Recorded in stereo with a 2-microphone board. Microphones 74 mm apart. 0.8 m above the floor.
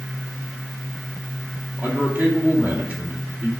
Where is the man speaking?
25° right (ahead or behind), 2 m.